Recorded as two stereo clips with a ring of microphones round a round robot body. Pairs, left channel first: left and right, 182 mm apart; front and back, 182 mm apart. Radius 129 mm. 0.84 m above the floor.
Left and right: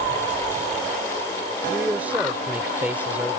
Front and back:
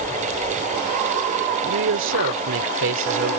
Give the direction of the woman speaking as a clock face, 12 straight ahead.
6 o'clock.